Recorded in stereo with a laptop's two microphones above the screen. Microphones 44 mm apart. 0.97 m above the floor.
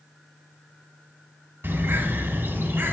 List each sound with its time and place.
1.6 s a bird: 65° right (ahead or behind), 2.5 m